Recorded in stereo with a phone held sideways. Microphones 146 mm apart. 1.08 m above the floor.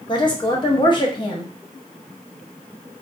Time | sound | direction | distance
0.1 | a woman speaking | 30° left (ahead or behind) | 0.8 m